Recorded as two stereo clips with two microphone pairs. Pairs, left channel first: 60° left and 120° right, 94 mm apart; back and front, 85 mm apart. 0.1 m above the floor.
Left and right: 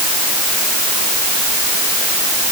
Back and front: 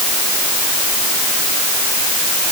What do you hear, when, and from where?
Only background noise.